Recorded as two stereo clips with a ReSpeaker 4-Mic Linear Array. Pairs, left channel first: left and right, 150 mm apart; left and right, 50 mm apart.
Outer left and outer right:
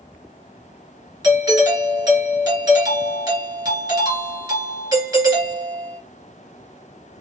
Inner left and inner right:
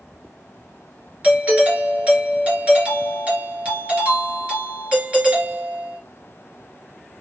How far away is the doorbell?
About 1.9 m.